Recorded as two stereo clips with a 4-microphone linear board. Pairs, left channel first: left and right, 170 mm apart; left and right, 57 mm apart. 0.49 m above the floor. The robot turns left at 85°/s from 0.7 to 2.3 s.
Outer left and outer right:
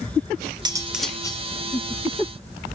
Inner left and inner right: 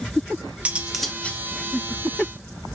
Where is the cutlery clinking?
155° right, 0.7 m; by 1.4 s 145° left, 0.7 m.